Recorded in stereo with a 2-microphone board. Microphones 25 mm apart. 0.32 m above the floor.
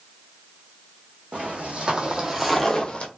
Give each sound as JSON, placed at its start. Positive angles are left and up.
{"t": 1.3, "sound": "footsteps", "side_deg": -60, "distance_m": 1.2}